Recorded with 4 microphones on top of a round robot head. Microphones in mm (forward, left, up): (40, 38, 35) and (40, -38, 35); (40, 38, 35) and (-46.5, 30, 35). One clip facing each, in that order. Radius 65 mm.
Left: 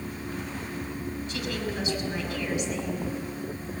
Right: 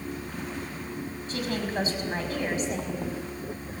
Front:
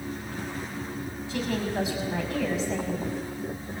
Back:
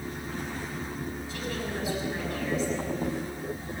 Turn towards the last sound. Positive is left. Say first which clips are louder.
# right 4 dB, front 8 dB
turn(degrees=-35)